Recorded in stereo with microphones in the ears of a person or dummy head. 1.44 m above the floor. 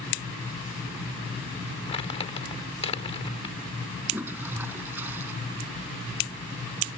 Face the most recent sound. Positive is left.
turn(degrees=-15)  # may be behind; listen again after turning